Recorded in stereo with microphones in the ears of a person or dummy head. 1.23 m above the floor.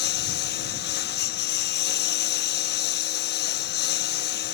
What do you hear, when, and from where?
0.0 s a lawn mower: 45° left (ahead or behind)